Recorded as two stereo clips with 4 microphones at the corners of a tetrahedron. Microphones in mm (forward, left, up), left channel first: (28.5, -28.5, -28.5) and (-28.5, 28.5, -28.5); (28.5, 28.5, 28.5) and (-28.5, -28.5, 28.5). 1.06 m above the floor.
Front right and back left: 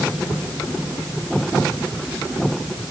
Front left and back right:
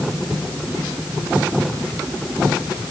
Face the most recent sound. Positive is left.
No sound to turn to.